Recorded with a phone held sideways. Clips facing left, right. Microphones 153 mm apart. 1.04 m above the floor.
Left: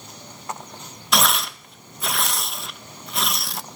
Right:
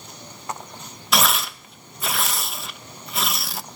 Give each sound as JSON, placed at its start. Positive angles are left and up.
{"t": 1.1, "sound": "tearing paper", "side_deg": 0, "distance_m": 0.8}